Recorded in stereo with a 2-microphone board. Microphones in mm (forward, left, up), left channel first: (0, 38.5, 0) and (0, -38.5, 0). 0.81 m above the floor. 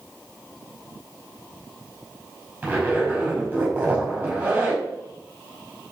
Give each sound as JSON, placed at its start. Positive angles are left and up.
{"t": 2.6, "sound": "a zipper", "side_deg": -20, "distance_m": 5.0}